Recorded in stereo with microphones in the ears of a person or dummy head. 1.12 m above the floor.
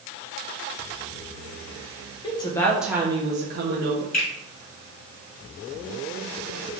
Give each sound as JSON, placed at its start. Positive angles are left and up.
{"t": 2.2, "sound": "a woman speaking", "side_deg": 30, "distance_m": 0.9}
{"t": 4.1, "sound": "a finger snap", "side_deg": 45, "distance_m": 1.9}